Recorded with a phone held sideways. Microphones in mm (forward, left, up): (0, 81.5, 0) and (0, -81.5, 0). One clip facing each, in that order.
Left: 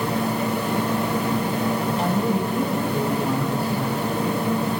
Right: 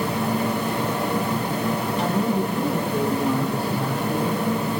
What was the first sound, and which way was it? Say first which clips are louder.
A woman speaking: even; 20° left (ahead or behind).